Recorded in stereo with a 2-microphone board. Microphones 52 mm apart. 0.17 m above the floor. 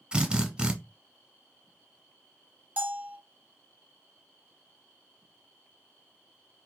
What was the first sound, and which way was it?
A drill, 20° right (ahead or behind).